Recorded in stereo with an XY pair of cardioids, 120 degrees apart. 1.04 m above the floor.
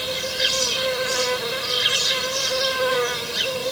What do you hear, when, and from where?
0.0 s an insect: 5° right